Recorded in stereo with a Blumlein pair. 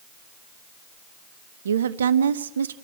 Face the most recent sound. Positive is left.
turn(degrees=-65)